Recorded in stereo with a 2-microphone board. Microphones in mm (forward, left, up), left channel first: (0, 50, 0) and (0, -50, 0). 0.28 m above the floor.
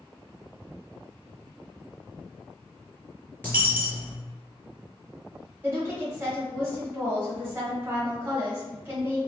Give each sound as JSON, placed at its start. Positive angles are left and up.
{"t": 3.4, "sound": "a dropped coin", "side_deg": 15, "distance_m": 1.2}
{"t": 5.6, "sound": "a woman speaking", "side_deg": -25, "distance_m": 1.2}